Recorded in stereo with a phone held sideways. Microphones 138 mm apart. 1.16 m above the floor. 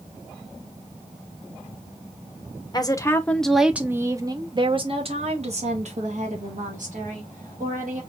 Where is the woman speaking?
30° left (ahead or behind), 0.8 m; by 8.0 s 65° right (ahead or behind), 2.5 m.